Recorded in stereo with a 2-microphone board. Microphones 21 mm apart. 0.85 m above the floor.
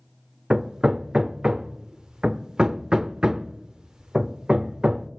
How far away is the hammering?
About 0.5 m.